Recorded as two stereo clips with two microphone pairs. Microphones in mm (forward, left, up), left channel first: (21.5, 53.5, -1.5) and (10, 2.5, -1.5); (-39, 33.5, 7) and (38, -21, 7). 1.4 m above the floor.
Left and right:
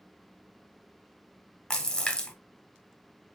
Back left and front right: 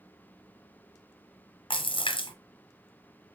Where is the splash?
145° left, 0.8 m.